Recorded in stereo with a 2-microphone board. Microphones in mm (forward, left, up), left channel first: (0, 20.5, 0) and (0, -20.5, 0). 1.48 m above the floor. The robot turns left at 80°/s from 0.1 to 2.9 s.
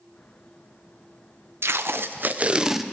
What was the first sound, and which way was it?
Tape being pulled, 80° right.